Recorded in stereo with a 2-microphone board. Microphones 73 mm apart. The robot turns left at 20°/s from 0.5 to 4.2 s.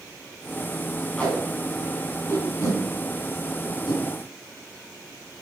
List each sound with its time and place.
1.2 s tape being pulled: 15° left (ahead or behind), 3.5 m; by 4.0 s 70° left (ahead or behind), 3.5 m